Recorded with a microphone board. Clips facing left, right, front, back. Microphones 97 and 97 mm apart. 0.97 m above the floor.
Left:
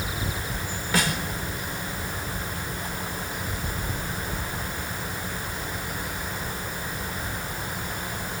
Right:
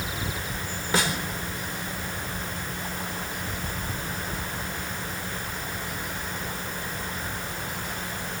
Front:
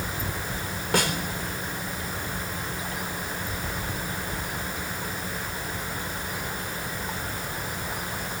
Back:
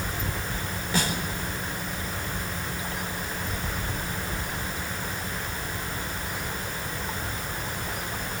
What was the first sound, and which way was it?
A snare drum, 30° right.